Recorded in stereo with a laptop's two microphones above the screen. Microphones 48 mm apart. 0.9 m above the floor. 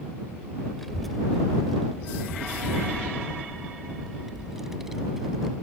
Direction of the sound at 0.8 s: 5° left (ahead or behind).